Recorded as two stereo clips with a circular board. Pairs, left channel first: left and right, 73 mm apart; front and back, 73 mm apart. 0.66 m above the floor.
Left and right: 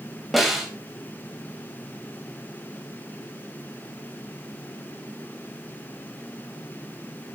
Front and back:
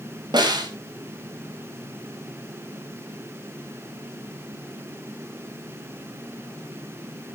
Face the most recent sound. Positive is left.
turn(degrees=180)